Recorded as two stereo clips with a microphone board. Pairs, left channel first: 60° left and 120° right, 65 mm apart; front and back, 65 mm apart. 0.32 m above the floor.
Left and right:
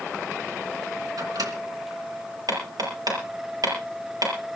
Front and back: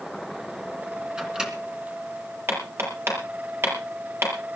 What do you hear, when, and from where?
1.2 s a microwave: 100° right, 3 m
2.5 s hammering: 130° right, 6.5 m